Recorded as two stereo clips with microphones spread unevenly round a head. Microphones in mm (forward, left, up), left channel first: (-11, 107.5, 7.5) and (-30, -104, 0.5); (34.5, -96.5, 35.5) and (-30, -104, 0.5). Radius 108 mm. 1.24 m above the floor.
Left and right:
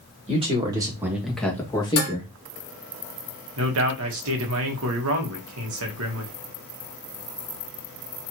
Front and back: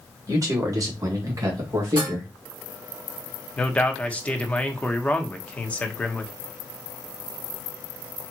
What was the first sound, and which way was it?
A man speaking, 155° right.